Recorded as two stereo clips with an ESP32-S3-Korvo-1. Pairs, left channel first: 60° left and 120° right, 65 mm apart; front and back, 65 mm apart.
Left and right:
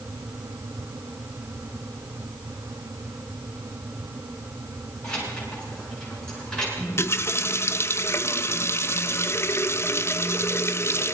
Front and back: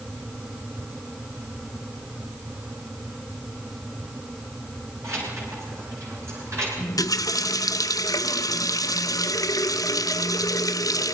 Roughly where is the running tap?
Ahead.